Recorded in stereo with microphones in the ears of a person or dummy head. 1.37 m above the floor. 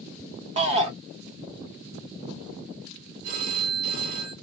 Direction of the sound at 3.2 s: 45° right (ahead or behind).